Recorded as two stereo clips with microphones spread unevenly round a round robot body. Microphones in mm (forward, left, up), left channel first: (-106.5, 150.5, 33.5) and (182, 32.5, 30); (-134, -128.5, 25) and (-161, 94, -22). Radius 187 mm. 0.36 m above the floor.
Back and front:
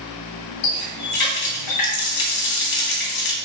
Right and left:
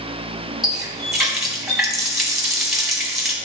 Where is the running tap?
Straight behind, 1.8 m.